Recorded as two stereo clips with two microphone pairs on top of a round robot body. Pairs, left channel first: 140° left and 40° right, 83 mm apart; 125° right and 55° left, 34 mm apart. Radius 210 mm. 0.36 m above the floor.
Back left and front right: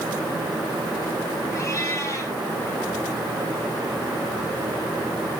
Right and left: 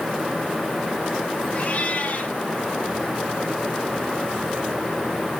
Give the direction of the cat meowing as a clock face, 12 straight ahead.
5 o'clock.